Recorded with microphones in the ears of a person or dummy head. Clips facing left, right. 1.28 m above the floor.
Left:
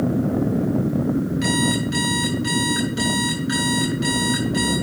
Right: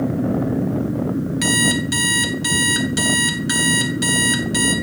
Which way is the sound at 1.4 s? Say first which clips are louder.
Right 1 dB; 70° right (ahead or behind).